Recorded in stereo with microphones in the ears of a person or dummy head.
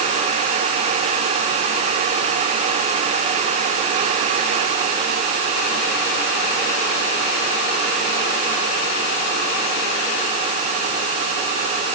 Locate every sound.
Only background noise.